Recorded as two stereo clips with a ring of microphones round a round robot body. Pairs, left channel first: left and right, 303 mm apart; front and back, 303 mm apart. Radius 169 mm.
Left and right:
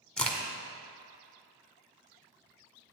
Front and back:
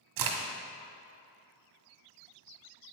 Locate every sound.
0.2 s a crack: 175° left, 1.6 m